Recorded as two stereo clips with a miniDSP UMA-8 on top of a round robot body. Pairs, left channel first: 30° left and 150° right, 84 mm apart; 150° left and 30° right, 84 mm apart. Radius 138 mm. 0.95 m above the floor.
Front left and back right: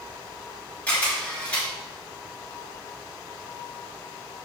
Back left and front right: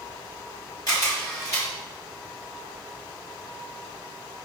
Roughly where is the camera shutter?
Left.